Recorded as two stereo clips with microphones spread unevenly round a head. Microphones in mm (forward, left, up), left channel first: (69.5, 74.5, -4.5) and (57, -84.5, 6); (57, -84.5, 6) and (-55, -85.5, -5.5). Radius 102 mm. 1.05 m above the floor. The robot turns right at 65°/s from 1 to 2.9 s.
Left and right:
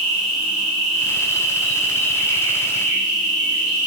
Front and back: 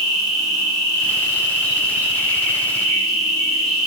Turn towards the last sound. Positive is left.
turn(degrees=75)